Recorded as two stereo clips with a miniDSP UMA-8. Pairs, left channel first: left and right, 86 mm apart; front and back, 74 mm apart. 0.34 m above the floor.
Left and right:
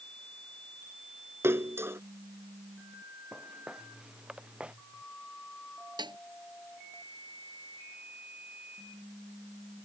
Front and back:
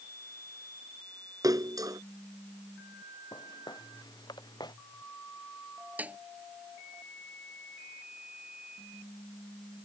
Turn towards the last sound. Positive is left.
turn(degrees=-110)